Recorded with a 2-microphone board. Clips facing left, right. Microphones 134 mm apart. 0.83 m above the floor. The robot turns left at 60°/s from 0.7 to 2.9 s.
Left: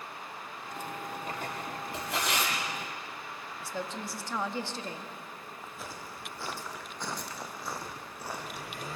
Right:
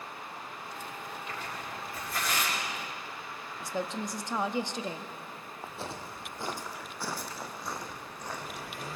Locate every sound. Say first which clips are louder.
1.3 s tearing paper: left 3 dB; 40° left (ahead or behind), 7.5 m; by 2.5 s 60° left (ahead or behind), 7.5 m
3.6 s a woman speaking: right 4 dB; 20° right (ahead or behind), 1.0 m
5.6 s footsteps: right 6 dB; 35° right (ahead or behind), 2 m; by 8.9 s 15° left (ahead or behind), 3.5 m